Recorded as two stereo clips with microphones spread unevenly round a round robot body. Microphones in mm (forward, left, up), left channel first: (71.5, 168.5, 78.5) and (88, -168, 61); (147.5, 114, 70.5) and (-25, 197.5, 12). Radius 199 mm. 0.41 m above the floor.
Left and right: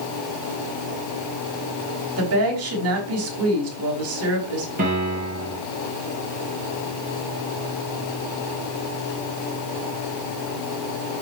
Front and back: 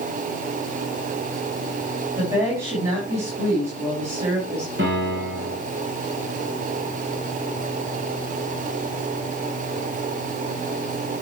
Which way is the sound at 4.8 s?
155° right.